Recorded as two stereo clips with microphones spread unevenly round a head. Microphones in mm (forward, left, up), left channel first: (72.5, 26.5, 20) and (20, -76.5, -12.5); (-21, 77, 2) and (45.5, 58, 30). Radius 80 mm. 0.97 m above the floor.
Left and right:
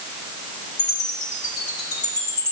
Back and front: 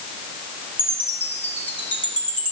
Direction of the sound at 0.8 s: 100° left.